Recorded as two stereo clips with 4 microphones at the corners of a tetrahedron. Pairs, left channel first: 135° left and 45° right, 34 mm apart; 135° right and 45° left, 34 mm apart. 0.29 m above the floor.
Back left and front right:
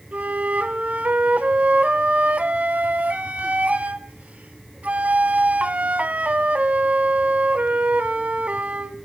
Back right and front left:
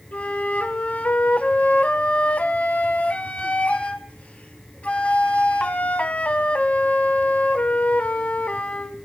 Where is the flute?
90° right, 0.6 m.